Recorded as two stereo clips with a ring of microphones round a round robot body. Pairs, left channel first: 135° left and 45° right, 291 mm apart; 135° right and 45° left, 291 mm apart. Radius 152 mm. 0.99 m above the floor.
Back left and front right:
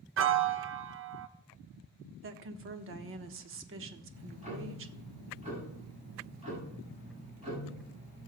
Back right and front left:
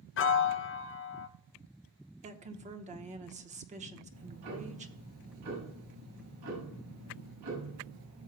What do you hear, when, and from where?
0.2 s a piano: 90° right, 0.6 m
2.2 s a woman speaking: 15° right, 1.0 m
4.1 s ticking: 20° left, 6 m